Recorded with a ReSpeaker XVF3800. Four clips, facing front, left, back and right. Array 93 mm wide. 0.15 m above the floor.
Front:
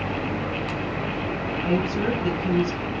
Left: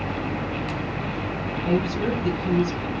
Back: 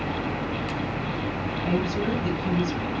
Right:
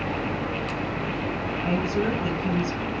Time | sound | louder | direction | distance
1.6 | a woman speaking | left 2 dB, front 2 dB | 65° right | 1.6 m